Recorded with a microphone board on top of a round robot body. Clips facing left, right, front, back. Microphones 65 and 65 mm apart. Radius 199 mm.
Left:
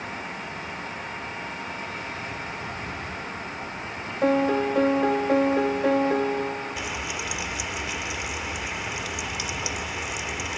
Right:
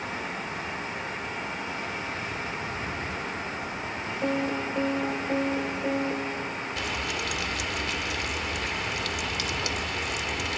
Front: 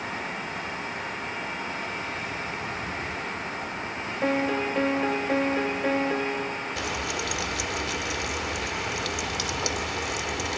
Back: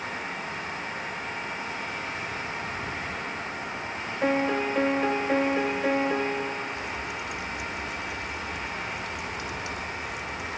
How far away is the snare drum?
No snare drum in this recording.